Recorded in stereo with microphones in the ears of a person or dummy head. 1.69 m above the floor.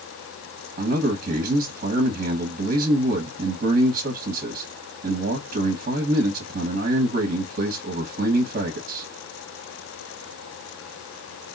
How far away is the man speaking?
About 2 m.